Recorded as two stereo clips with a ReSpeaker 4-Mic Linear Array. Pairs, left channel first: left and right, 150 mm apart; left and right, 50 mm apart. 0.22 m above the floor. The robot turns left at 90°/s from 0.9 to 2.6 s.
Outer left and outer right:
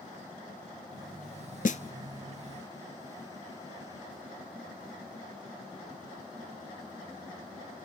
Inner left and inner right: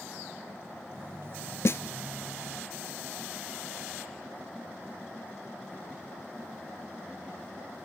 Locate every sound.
1.6 s a snare drum: 65° left (ahead or behind), 0.5 m; by 1.8 s 50° left (ahead or behind), 0.5 m